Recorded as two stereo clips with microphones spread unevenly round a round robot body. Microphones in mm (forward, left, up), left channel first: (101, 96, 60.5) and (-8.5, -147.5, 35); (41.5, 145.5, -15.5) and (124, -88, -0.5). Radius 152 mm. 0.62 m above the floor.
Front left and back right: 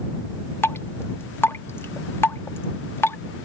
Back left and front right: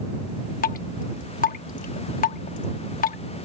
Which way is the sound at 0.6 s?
150° left.